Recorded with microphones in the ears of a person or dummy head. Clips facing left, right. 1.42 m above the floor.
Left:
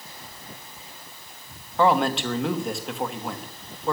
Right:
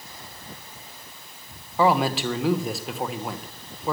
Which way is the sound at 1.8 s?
Centre (ahead or behind).